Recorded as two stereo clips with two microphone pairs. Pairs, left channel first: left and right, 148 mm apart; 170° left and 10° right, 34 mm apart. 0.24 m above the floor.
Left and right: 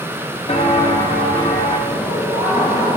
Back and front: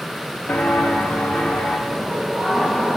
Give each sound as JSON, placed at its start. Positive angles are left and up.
{"t": 0.5, "sound": "footsteps", "azimuth_deg": 140, "distance_m": 2.0}
{"t": 1.9, "sound": "laughter", "azimuth_deg": 60, "distance_m": 4.5}